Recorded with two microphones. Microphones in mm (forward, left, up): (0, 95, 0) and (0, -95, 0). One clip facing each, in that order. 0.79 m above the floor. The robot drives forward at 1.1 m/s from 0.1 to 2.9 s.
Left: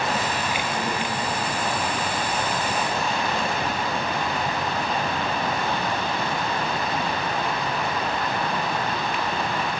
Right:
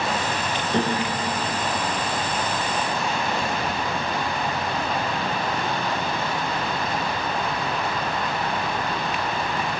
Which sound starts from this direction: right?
A piano, at 0.7 s.